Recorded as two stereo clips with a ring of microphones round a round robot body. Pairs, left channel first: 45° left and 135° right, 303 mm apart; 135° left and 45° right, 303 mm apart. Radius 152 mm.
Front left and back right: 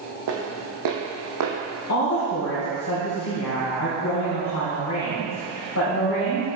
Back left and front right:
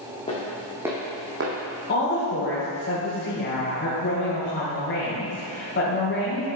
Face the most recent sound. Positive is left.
turn(degrees=80)